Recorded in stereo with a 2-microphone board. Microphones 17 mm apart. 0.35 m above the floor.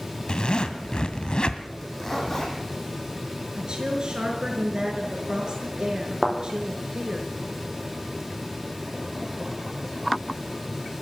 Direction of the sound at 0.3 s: 65° left (ahead or behind).